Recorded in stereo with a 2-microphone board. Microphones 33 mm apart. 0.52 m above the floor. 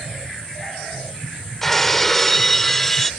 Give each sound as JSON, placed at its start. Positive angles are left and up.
{"t": 1.6, "sound": "breaking glass", "side_deg": 15}